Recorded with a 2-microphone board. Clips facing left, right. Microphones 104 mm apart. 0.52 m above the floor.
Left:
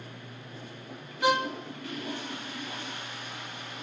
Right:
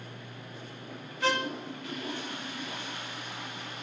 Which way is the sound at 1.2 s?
15° left (ahead or behind).